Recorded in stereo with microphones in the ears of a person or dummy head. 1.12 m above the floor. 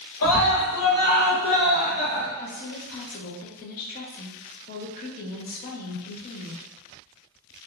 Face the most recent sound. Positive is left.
turn(degrees=50)  # may be behind; listen again after turning